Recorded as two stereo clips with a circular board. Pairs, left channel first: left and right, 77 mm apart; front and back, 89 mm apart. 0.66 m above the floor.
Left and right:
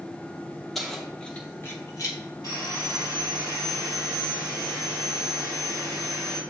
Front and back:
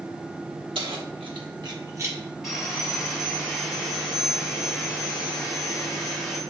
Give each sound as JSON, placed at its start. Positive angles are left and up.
{"t": 0.8, "sound": "keys jangling", "azimuth_deg": 180, "distance_m": 1.1}
{"t": 2.4, "sound": "sawing", "azimuth_deg": 100, "distance_m": 2.0}